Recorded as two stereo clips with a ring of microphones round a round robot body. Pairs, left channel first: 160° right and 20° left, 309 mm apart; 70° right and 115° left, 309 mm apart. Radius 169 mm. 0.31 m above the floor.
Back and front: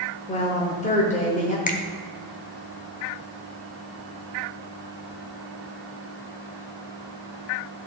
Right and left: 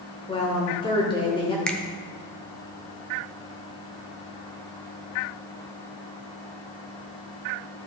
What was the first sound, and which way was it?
A woman speaking, 120° right.